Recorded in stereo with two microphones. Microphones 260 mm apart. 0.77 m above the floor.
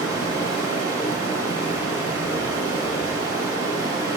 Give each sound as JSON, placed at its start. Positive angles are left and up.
{"t": 0.0, "sound": "running water", "side_deg": 55, "distance_m": 1.3}